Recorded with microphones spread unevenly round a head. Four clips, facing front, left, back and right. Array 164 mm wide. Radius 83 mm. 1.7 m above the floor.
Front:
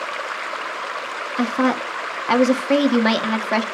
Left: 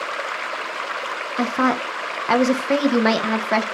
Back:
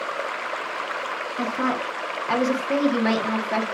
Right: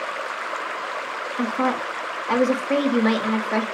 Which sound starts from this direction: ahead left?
A woman speaking, at 1.4 s.